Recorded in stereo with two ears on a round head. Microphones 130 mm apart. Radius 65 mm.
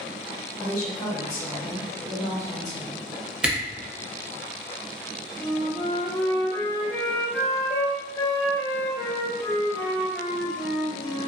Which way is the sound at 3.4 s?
5° right (ahead or behind).